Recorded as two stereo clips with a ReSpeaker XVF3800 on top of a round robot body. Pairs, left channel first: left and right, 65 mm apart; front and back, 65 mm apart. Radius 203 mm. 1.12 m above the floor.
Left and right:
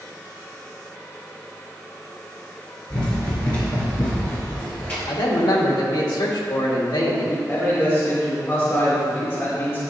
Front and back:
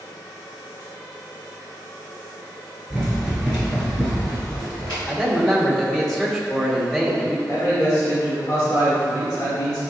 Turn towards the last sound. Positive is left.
turn(degrees=30)